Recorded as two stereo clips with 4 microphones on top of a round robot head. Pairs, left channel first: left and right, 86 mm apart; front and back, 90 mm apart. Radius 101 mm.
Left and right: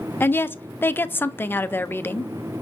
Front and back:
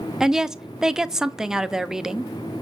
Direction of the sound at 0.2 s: 105° left.